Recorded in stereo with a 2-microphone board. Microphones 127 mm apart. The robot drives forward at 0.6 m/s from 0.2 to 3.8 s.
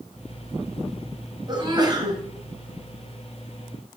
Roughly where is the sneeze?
Right.